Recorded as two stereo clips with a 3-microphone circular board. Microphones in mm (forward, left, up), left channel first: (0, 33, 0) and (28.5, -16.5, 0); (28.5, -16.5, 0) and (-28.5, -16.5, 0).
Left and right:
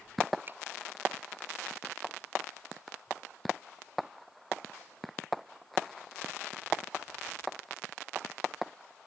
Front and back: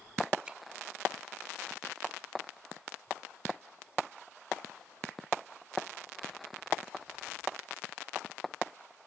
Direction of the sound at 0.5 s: 105° right.